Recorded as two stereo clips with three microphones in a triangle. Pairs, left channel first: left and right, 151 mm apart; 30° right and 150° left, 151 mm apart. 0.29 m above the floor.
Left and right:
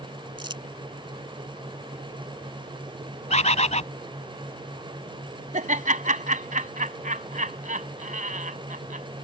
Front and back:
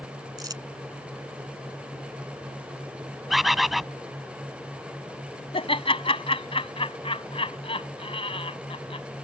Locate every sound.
0.4 s crumpling: 145° right
3.3 s a bird: 60° left
5.5 s laughter: 75° right